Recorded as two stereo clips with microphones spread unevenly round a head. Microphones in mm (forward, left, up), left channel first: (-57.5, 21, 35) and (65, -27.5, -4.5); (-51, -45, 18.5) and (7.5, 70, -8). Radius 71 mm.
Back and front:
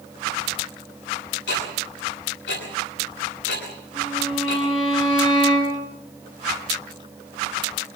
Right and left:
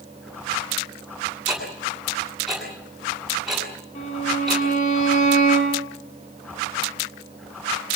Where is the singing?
I don't hear singing.